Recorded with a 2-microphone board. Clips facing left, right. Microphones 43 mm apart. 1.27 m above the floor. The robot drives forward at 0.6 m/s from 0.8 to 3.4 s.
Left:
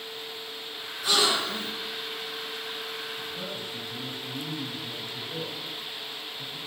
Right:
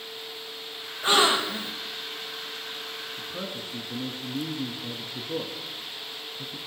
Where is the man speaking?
85° right, 1.5 m; by 6.6 s 80° right, 1.5 m.